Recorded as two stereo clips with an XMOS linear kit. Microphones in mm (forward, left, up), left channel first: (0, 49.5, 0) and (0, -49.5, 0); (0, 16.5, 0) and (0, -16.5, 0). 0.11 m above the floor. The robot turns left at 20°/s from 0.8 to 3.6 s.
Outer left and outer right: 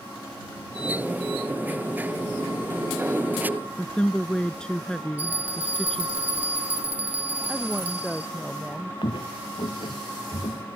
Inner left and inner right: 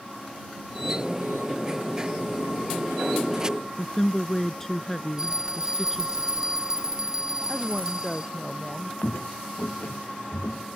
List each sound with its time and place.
3.8 s a woman speaking: 10° left (ahead or behind)
5.2 s a bell: 20° right (ahead or behind)
7.5 s a woman speaking: 5° right (ahead or behind)
9.0 s footsteps: 55° left (ahead or behind); by 10.7 s 65° left (ahead or behind)